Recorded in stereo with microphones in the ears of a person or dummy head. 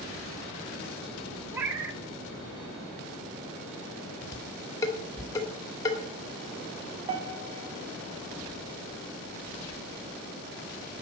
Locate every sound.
1.5 s a cat meowing: 15° right (ahead or behind), 1.0 m
4.3 s dishes clattering: 15° left (ahead or behind), 2.5 m
7.1 s a piano: 40° right (ahead or behind), 1.7 m